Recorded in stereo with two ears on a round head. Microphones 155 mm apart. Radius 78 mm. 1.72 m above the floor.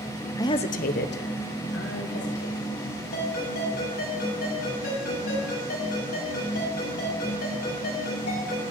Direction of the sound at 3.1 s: 60° left (ahead or behind).